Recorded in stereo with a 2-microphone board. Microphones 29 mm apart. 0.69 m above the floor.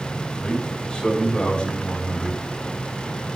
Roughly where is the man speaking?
Left.